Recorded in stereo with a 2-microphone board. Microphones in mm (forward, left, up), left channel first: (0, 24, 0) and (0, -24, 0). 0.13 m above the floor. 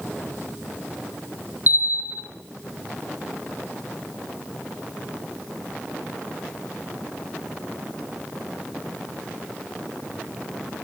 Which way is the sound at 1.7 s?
40° right (ahead or behind).